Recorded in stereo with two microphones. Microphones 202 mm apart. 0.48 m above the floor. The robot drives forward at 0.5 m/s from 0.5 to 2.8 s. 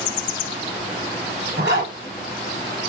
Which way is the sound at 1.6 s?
55° right (ahead or behind).